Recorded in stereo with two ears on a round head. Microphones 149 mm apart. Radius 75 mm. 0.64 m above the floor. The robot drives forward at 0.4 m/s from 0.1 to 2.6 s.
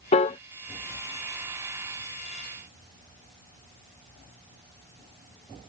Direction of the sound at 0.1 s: 35° left (ahead or behind).